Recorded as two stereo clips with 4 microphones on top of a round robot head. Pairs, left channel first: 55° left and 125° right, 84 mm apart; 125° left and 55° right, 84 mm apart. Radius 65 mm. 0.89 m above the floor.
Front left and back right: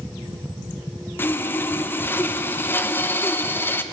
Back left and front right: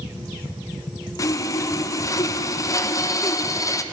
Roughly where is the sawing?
Left.